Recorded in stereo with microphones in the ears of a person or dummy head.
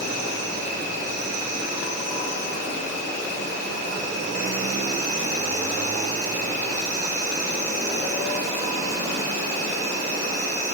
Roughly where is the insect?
Right.